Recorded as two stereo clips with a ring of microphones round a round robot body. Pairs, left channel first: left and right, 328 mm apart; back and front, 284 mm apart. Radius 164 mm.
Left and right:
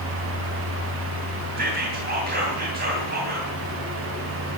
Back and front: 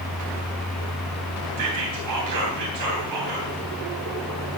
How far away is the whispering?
About 3 m.